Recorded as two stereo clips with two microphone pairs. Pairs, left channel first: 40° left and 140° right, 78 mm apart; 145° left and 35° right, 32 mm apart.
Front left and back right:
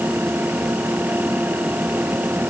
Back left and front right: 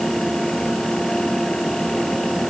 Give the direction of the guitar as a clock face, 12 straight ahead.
I don't hear a guitar.